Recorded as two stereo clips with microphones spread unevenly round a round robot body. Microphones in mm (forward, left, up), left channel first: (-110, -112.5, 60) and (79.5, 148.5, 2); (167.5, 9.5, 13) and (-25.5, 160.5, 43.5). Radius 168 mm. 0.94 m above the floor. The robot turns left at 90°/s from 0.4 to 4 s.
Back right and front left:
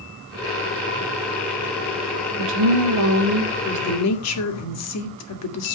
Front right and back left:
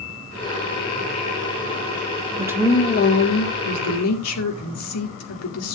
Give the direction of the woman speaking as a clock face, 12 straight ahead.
10 o'clock.